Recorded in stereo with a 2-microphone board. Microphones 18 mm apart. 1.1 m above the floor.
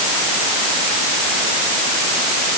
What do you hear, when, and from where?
Only background noise.